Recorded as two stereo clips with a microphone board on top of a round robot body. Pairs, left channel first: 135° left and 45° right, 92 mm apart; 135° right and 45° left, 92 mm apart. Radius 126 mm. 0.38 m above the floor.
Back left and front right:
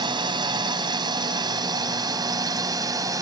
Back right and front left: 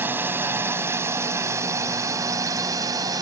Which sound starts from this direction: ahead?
A drone, at 0.0 s.